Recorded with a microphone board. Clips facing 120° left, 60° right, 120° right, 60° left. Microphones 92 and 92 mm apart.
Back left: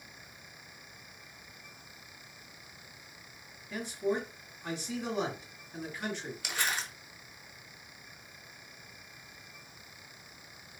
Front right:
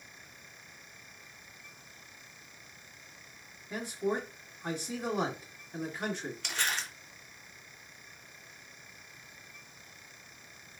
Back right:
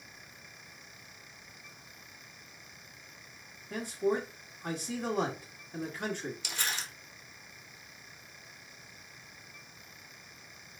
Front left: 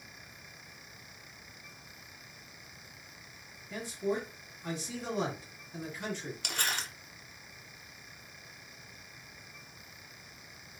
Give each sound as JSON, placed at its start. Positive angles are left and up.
{"t": 3.7, "sound": "a man speaking", "azimuth_deg": -110, "distance_m": 1.5}
{"t": 6.4, "sound": "crumpling", "azimuth_deg": 40, "distance_m": 1.2}